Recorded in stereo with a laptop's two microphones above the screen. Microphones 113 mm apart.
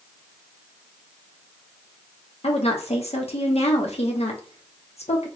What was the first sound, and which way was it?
A woman speaking, 70° left (ahead or behind).